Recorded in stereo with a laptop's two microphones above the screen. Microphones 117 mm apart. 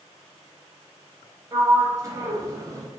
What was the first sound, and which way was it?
A sliding door, 25° right (ahead or behind).